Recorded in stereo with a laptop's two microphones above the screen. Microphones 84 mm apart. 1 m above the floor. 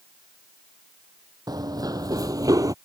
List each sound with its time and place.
1.5 s running footsteps: 55° right (ahead or behind); by 2.7 s 50° right (ahead or behind)